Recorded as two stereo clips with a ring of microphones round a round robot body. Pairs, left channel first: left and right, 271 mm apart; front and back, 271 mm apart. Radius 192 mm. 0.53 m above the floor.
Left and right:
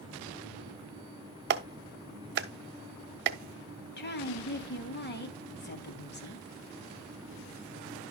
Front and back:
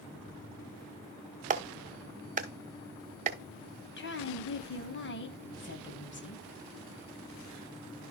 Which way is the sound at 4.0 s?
40° left.